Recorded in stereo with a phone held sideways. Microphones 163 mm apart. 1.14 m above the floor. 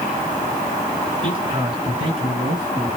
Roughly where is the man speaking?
Right.